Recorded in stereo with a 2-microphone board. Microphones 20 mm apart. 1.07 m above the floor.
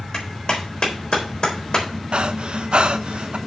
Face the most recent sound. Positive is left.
turn(degrees=-55)  # may be behind; listen again after turning